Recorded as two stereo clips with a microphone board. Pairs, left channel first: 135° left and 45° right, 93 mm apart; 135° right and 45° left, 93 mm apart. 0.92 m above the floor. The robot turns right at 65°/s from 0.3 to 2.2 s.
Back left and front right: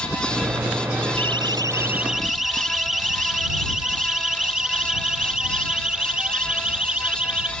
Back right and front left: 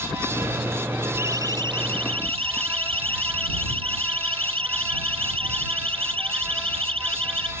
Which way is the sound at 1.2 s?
20° right.